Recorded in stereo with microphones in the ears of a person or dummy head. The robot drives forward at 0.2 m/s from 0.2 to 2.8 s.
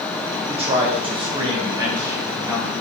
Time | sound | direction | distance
0.5 | a man speaking | 35° right (ahead or behind) | 0.5 m